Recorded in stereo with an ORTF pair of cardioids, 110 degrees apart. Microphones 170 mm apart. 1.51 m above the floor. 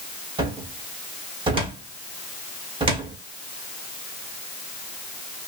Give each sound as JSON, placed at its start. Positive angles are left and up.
{"t": 0.4, "sound": "a cupboard door", "azimuth_deg": -30, "distance_m": 1.1}